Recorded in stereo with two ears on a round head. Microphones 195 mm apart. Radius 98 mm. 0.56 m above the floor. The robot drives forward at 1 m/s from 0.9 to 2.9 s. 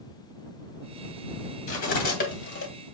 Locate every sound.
1.7 s cutlery clinking: 40° left (ahead or behind), 2.5 m; by 2.7 s 55° left (ahead or behind), 1.9 m